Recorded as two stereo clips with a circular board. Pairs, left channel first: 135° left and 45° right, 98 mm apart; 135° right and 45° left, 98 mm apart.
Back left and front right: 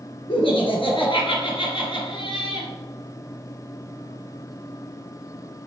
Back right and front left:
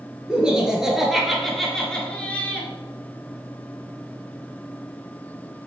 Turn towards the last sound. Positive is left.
turn(degrees=155)